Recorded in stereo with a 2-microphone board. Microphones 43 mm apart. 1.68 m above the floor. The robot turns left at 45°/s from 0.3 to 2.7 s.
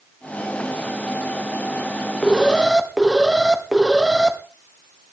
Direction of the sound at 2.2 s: 15° left (ahead or behind).